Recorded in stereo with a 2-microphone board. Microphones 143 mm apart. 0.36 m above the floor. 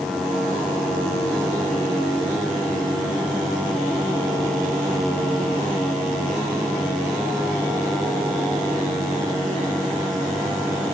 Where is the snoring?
I don't hear snoring.